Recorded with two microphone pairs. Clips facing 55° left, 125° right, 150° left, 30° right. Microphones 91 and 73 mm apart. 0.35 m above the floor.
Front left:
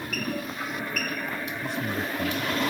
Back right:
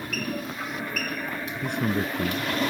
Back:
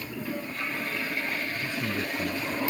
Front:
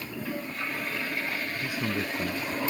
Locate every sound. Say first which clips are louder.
1.6 s a man speaking: back right 5 dB, even; 105° right